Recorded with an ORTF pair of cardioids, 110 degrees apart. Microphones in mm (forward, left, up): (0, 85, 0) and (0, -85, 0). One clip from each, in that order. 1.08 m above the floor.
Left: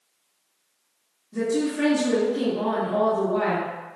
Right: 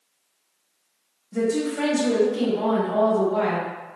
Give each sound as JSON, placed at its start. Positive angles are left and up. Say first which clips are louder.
{"t": 1.3, "sound": "a woman speaking", "louder": "right 1 dB", "azimuth_deg": -60, "distance_m": 1.2}